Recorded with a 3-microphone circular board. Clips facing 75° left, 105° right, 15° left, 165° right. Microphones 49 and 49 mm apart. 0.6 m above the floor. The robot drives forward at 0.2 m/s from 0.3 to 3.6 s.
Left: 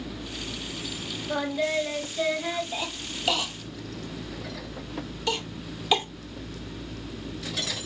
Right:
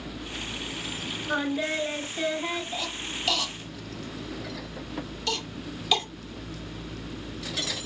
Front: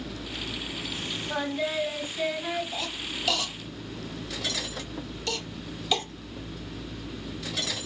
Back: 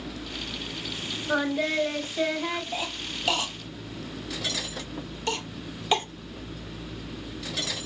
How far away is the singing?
About 1.6 m.